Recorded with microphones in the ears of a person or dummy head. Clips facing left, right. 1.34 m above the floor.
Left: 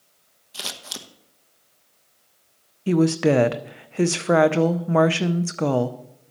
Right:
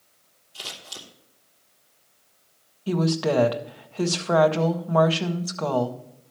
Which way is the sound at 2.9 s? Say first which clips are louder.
Left 5 dB; 25° left (ahead or behind).